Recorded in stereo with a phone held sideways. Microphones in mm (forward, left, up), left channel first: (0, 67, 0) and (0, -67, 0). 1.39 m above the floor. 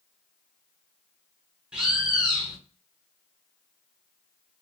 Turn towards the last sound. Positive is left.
turn(degrees=-10)  # may be behind; listen again after turning